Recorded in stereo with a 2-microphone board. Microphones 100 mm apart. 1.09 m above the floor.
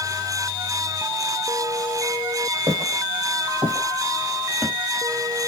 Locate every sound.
2.7 s footsteps: 55° right (ahead or behind), 1.9 m; by 4.7 s 5° left (ahead or behind), 1.2 m